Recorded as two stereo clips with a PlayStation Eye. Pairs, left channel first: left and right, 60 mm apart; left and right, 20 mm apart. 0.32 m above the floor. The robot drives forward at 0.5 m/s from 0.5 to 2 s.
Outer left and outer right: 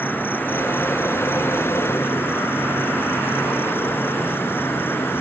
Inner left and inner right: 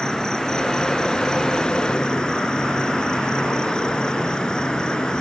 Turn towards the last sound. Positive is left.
turn(degrees=40)  # may be behind; listen again after turning